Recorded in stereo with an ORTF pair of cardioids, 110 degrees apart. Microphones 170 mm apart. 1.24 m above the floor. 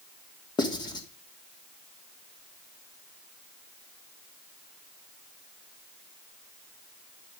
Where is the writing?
25° left, 3 m.